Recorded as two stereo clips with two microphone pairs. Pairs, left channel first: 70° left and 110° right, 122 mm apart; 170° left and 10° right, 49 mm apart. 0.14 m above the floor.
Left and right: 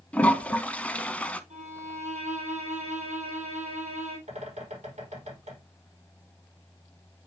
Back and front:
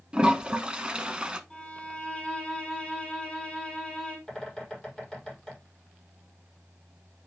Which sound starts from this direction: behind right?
A violin, at 1.5 s.